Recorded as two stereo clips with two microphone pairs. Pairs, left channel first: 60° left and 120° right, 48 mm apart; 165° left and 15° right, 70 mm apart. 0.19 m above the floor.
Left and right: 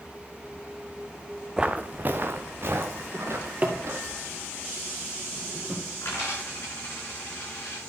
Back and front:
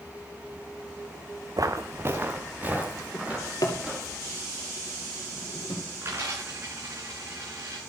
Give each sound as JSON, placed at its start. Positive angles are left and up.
{"t": 1.6, "sound": "footsteps", "azimuth_deg": -45, "distance_m": 0.7}
{"t": 3.1, "sound": "a drawer", "azimuth_deg": -175, "distance_m": 2.0}
{"t": 6.0, "sound": "a dropped coin", "azimuth_deg": 35, "distance_m": 6.5}